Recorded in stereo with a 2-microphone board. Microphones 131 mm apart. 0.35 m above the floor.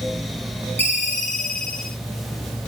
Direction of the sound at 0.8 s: 15° left (ahead or behind).